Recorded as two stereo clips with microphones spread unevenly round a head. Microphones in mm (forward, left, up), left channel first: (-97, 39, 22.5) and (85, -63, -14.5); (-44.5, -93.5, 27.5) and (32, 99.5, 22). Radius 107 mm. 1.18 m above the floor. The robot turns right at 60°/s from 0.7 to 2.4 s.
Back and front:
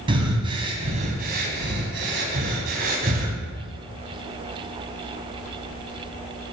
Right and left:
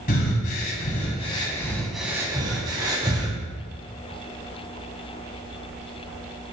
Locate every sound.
0.1 s breathing: 95° right, 1.2 m; by 3.4 s 5° left, 1.2 m